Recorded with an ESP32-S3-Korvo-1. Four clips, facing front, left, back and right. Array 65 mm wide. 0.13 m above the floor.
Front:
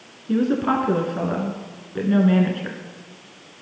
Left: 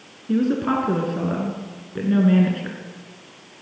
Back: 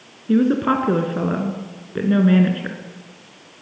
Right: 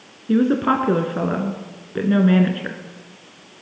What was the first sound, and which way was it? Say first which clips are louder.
A woman speaking: right 3 dB, back 3 dB; 120° right.